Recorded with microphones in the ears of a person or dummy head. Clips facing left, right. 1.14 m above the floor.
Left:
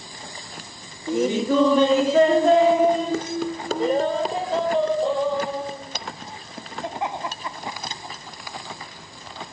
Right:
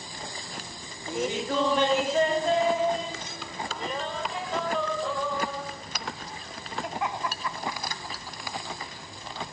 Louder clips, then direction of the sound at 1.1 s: Left 8 dB; 75° left (ahead or behind).